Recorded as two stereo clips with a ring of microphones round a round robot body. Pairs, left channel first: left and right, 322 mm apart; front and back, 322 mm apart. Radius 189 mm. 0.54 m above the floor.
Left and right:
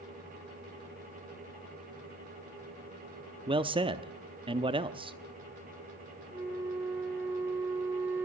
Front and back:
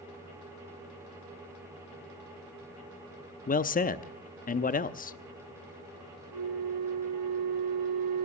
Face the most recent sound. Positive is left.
turn(degrees=-175)